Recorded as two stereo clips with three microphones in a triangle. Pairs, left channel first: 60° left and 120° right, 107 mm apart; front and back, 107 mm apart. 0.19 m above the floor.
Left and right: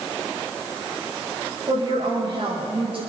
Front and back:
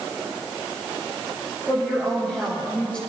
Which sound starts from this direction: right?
A woman speaking, at 1.7 s.